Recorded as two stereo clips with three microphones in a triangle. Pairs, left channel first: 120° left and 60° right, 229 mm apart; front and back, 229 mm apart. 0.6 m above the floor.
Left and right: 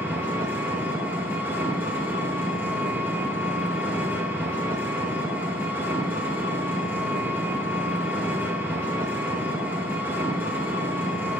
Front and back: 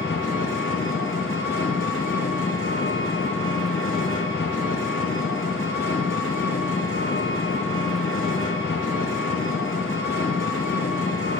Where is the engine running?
20° left, 2 m.